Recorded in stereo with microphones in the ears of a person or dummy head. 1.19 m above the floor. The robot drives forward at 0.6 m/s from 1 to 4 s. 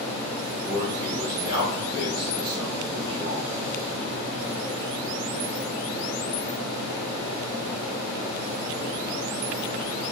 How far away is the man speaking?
About 1.3 m.